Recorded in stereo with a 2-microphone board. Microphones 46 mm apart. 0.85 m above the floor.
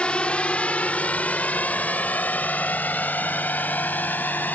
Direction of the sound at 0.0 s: 25° left (ahead or behind).